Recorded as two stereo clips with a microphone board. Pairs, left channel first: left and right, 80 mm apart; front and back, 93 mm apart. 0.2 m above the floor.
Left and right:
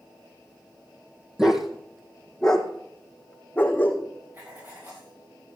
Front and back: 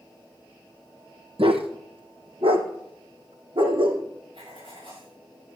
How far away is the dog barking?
About 2.0 m.